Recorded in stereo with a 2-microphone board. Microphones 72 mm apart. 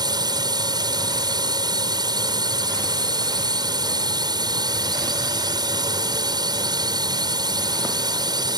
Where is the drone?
70° right (ahead or behind).